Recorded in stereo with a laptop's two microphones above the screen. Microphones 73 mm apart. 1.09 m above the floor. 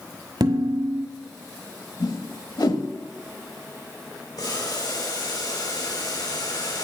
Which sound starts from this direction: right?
Dishes clattering, at 0.4 s.